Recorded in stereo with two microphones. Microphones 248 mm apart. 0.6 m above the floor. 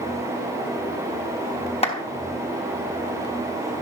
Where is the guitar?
No guitar in this recording.